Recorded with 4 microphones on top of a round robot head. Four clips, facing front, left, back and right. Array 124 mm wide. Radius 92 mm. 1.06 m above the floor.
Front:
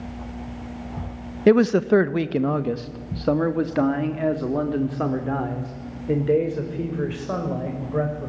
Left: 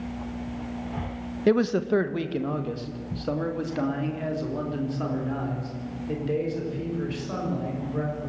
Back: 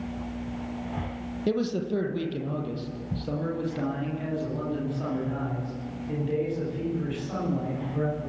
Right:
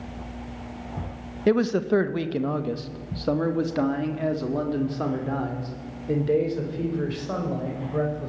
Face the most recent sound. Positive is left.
turn(degrees=-20)